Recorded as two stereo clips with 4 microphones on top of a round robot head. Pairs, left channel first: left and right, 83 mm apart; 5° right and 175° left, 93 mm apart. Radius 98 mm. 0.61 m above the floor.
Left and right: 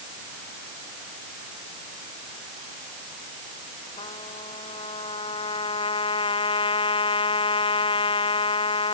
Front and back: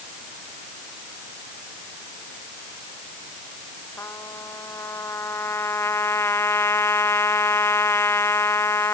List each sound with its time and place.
4.0 s a trumpet: 60° left